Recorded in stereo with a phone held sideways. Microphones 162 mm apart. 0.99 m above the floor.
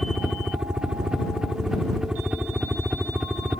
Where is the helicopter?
5° right (ahead or behind).